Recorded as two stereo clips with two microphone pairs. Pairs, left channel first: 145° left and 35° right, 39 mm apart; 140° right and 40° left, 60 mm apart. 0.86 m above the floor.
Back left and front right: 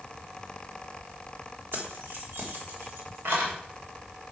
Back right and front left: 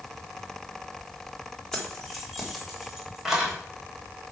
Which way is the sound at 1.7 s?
60° right.